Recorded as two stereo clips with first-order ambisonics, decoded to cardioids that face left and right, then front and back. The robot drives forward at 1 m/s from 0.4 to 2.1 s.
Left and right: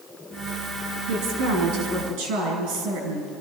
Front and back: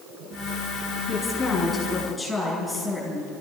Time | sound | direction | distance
1.1 | a woman speaking | 75° right | 5.5 m